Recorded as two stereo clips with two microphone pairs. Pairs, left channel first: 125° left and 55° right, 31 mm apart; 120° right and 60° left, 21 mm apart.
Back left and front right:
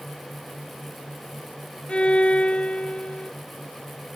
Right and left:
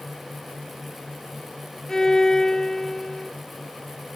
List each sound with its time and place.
1.9 s a violin: 175° left